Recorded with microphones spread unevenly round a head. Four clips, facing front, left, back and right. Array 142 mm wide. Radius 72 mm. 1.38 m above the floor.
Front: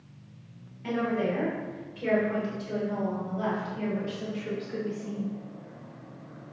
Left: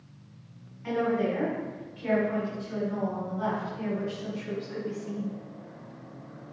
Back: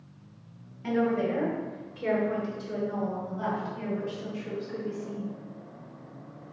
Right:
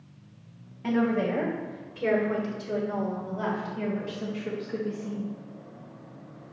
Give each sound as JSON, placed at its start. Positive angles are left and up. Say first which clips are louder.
{"t": 0.8, "sound": "a woman speaking", "louder": "right 1 dB, back 2 dB", "azimuth_deg": -100, "distance_m": 4.0}